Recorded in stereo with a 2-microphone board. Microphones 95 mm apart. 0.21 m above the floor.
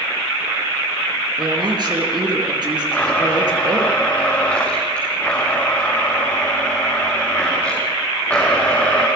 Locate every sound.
1.4 s a woman speaking: 50° right (ahead or behind), 4.5 m
2.9 s a blender: 15° left (ahead or behind), 5 m